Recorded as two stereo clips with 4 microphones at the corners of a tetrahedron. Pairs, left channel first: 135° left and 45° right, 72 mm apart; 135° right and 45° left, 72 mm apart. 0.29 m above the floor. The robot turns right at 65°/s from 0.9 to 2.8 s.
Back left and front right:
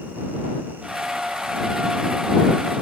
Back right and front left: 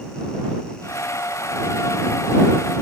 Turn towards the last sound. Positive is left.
No sound to turn to.